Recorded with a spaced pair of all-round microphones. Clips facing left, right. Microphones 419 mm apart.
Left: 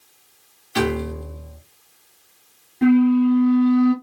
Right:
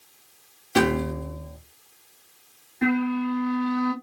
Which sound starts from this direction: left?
A flute, at 2.8 s.